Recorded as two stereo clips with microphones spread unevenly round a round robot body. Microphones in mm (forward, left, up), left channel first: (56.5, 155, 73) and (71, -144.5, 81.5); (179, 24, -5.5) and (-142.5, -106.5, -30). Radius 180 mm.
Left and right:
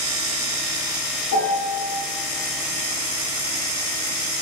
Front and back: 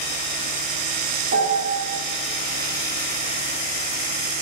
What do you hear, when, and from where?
1.3 s a piano: 140° left, 3.5 m